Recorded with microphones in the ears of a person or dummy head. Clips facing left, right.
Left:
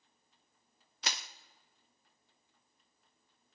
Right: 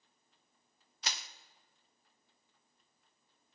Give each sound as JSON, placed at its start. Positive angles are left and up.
{"t": 1.0, "sound": "crushing", "side_deg": 45, "distance_m": 0.6}